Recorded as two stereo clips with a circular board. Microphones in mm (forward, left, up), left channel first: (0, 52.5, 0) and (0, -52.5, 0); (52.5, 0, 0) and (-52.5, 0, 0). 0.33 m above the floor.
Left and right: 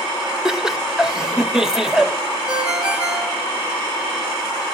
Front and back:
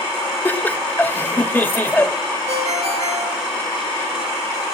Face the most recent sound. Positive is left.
turn(degrees=-170)